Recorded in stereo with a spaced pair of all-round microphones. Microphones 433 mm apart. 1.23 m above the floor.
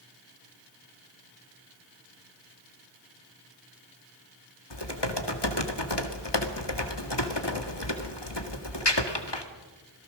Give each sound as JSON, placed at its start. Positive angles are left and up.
{"t": 4.7, "sound": "typing on a keyboard", "side_deg": 65, "distance_m": 1.7}